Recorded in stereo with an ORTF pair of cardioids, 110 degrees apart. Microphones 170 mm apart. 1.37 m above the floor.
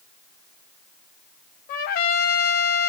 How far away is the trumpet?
About 0.7 m.